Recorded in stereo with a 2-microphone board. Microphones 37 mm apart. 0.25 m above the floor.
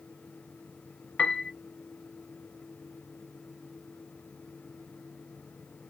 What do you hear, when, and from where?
1.2 s a piano: 40° left (ahead or behind), 0.6 m